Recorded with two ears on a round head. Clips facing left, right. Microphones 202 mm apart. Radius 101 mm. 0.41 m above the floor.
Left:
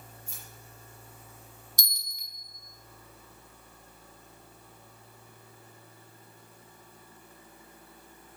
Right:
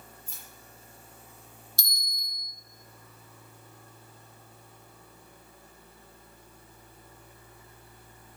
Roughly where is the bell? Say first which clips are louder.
Right 2 dB; centre.